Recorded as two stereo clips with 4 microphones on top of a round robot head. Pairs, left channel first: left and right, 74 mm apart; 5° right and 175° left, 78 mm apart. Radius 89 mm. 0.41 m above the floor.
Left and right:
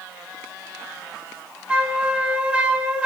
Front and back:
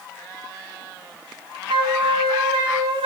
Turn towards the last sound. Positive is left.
turn(degrees=-165)